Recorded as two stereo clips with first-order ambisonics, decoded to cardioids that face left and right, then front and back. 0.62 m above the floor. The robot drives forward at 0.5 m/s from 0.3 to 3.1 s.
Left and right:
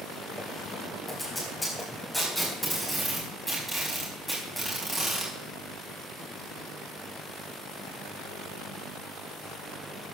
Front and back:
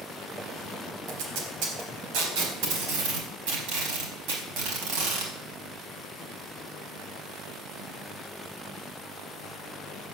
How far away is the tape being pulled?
About 4 m.